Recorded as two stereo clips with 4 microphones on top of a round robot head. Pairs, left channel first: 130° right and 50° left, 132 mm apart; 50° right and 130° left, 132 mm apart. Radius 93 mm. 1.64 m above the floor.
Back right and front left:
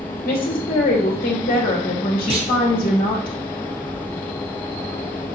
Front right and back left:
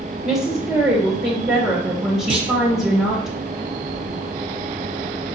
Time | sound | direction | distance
0.2 | a woman speaking | 160° right | 2 m
2.3 | a clunk | 90° left | 0.8 m